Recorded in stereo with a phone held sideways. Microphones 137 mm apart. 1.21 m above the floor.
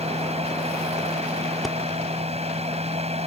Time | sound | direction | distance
0.0 | a fan | 50° right (ahead or behind) | ?
1.6 | breathing | centre (ahead or behind) | ?